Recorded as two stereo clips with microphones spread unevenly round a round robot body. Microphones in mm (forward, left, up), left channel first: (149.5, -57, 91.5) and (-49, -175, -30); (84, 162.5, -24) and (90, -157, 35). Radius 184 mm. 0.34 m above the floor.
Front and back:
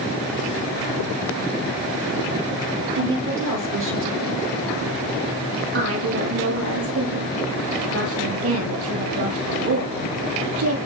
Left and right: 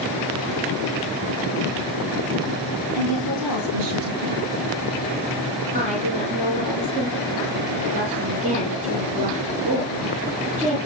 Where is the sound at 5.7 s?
160° right, 8.5 m.